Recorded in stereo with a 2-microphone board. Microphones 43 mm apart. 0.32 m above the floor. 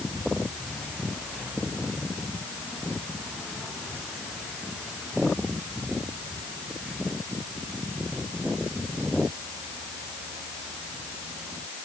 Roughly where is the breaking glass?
I don't hear breaking glass.